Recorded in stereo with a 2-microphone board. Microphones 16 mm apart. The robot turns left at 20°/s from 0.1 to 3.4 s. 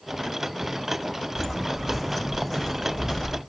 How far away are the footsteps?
About 1.4 m.